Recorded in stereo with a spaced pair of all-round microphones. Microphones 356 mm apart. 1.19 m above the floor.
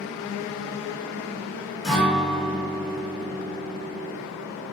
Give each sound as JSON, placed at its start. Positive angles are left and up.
{"t": 1.8, "sound": "a guitar", "side_deg": 0, "distance_m": 2.5}